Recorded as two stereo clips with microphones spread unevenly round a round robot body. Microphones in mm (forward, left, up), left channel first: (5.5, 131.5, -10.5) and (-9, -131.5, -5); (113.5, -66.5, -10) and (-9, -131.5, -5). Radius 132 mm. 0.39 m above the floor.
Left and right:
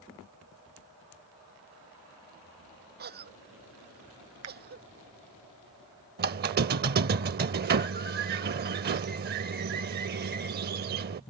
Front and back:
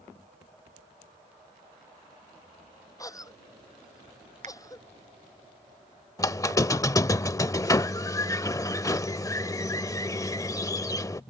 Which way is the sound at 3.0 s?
40° right.